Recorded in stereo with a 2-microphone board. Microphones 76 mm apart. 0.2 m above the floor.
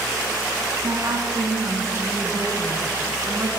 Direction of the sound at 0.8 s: 45° right (ahead or behind).